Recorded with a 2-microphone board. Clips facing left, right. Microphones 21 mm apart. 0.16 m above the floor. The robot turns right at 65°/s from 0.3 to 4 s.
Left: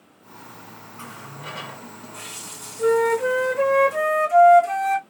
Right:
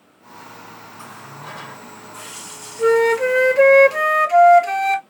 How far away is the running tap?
About 2.0 m.